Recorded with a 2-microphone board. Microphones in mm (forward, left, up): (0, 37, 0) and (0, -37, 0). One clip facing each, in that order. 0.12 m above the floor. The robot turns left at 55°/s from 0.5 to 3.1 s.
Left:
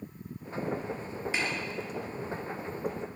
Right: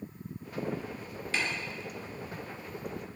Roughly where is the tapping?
Centre.